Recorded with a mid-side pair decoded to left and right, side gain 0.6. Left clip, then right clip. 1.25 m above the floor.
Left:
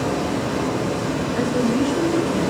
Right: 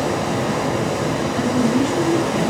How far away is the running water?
About 3 m.